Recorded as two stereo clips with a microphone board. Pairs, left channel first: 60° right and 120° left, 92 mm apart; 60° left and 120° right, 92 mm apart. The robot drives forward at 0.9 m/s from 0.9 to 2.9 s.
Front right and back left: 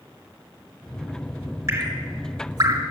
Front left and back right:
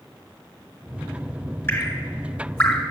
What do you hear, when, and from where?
1.7 s dripping: 100° left, 1.6 m; by 2.8 s 145° left, 2.0 m